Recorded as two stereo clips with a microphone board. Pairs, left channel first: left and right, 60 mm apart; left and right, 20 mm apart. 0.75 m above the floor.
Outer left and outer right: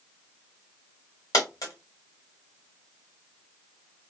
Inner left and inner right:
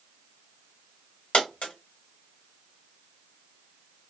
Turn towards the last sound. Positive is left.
turn(degrees=75)  # may be behind; listen again after turning